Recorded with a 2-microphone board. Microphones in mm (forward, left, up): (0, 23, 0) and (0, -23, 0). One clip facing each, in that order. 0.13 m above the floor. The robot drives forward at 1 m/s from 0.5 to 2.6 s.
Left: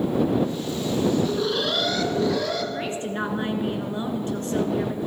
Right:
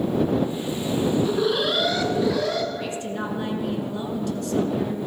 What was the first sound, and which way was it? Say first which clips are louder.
An alarm: right 2 dB; 10° right (ahead or behind).